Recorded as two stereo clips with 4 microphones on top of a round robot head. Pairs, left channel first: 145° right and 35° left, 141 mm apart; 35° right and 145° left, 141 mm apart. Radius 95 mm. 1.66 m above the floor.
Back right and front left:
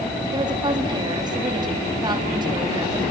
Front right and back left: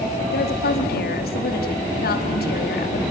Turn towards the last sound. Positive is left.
turn(degrees=-25)